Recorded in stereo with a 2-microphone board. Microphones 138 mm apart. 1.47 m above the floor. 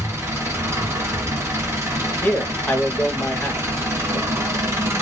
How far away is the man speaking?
About 0.8 m.